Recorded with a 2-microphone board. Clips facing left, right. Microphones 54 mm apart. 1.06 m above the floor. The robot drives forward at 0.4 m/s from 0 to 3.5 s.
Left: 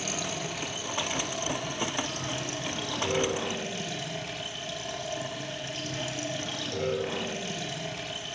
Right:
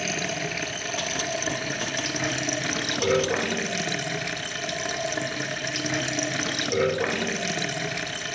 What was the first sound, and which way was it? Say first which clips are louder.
Running water: right 5 dB; 55° right (ahead or behind).